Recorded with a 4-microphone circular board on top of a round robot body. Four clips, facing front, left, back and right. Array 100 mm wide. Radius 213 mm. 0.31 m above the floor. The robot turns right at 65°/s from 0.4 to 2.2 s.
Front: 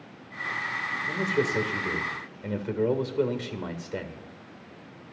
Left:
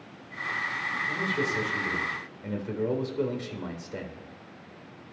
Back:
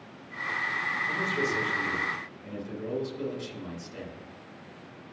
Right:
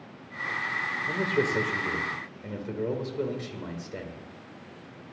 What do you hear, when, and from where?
1.1 s a man speaking: 75° right, 2.5 m; by 4.2 s straight ahead, 2.5 m